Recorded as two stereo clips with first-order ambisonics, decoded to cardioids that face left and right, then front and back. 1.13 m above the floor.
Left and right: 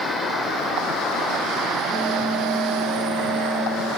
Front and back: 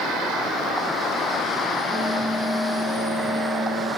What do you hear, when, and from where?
1.9 s a bell: 135° right, 2.5 m